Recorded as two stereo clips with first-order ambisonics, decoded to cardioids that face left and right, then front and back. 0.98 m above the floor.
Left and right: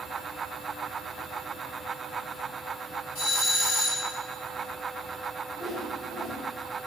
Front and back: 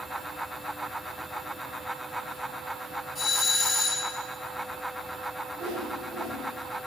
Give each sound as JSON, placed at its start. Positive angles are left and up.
{"t": 3.1, "sound": "a doorbell", "azimuth_deg": 75, "distance_m": 3.5}
{"t": 5.6, "sound": "a whoosh", "azimuth_deg": 165, "distance_m": 3.5}